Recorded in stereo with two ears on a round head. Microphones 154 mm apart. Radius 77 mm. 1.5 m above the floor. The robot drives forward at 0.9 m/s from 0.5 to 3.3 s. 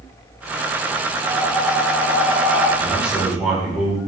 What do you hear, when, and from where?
1.2 s breathing: centre (ahead or behind), 1.9 m
2.8 s a man speaking: 5° right (ahead or behind), 4.5 m